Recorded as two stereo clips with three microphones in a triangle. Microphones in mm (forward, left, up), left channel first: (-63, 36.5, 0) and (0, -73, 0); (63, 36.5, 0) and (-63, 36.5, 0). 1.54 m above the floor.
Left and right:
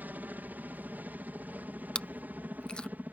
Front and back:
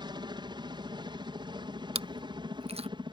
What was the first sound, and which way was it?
A helicopter, 135° right.